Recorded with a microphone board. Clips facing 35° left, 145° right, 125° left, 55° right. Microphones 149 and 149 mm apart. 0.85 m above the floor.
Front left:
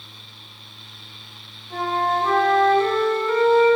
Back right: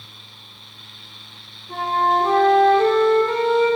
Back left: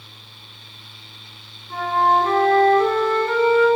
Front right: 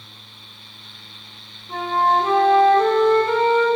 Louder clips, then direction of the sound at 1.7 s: Back right 2 dB, back left 1 dB; 125° right.